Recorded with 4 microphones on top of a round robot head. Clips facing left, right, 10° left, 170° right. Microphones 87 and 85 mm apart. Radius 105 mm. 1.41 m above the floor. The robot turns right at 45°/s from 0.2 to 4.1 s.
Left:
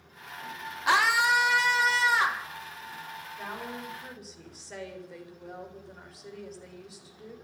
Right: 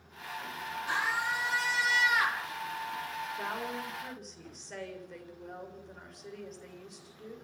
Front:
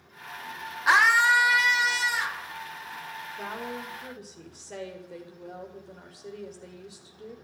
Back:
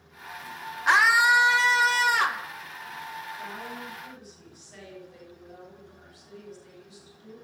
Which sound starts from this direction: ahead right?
A woman speaking, at 3.4 s.